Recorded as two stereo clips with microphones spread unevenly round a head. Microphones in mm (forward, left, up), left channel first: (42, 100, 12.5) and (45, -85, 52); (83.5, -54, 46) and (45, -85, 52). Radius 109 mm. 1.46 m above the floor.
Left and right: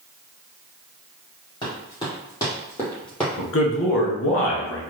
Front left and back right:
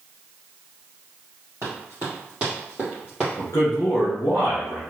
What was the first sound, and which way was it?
Running footsteps, 165° left.